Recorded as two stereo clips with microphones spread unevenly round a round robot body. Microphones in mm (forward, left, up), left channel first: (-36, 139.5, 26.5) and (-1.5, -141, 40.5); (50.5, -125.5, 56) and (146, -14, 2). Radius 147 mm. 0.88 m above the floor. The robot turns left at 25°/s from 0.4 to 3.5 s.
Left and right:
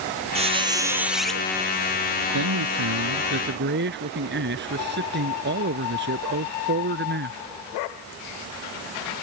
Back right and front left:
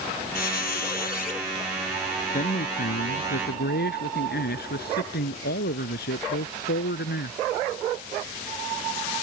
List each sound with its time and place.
0.3 s a squeak: 150° right; by 1.4 s 175° right
2.3 s a man speaking: 105° right; by 7.4 s 135° right